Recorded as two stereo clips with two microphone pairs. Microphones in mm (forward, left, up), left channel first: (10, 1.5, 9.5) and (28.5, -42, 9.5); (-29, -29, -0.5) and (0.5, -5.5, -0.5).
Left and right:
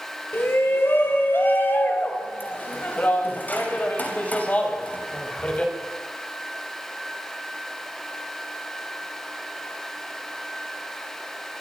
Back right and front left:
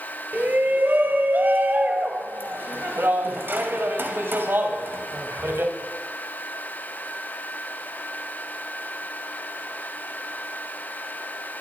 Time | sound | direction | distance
0.3 | a shout | 80° left | 5.5 m